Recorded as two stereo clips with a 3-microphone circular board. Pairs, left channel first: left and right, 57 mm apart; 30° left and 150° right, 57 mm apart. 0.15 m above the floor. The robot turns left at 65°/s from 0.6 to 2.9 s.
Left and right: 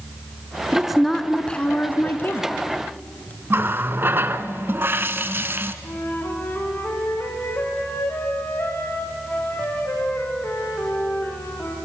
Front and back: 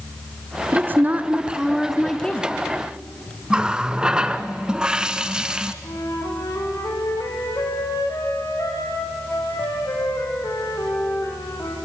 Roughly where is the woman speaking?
Behind.